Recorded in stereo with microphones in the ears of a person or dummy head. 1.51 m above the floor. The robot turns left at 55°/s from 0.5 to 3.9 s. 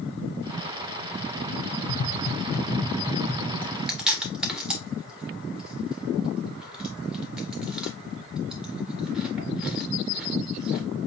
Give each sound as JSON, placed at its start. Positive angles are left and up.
{"t": 1.9, "sound": "tapping", "side_deg": 50, "distance_m": 0.8}
{"t": 3.6, "sound": "chewing", "side_deg": 10, "distance_m": 1.3}